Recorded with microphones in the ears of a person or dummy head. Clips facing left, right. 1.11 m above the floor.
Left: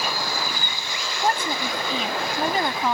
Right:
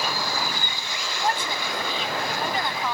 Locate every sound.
1.2 s a woman speaking: 40° left (ahead or behind)